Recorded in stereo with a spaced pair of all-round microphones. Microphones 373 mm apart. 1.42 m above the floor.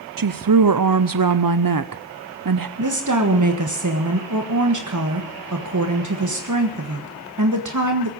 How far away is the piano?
No piano in this recording.